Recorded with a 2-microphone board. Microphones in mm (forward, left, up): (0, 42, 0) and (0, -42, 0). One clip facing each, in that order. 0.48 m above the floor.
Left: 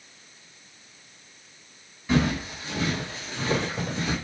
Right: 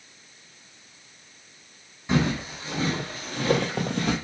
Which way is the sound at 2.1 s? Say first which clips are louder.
Even; 20° right (ahead or behind).